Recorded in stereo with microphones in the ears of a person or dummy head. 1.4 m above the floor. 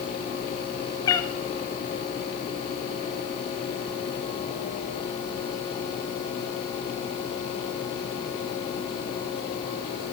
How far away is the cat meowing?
About 0.9 m.